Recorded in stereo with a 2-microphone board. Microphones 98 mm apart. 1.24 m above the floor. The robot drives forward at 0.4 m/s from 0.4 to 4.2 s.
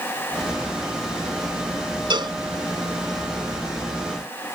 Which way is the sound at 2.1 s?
55° right (ahead or behind).